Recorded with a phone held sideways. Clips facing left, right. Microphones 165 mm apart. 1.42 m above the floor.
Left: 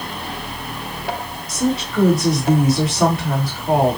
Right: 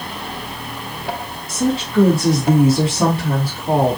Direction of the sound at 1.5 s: 25° right (ahead or behind).